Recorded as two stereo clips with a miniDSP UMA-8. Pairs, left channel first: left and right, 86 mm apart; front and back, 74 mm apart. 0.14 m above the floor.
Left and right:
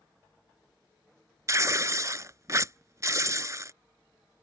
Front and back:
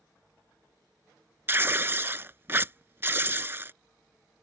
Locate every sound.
1.5 s tearing paper: 130° right